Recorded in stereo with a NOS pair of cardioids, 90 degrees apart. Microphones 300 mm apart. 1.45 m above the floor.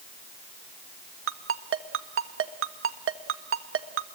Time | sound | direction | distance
1.3 | a ringtone | 45° right | 1.5 m